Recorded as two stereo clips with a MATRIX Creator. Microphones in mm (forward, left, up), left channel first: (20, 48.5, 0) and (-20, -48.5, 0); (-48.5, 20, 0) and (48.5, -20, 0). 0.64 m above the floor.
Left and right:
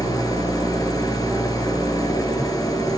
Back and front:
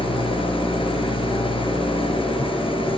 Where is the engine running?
125° left, 3.5 m.